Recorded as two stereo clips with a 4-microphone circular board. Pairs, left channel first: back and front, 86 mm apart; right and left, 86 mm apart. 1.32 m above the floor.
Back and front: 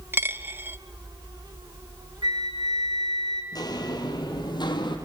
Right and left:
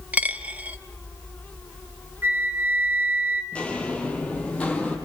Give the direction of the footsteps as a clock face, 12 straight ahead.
5 o'clock.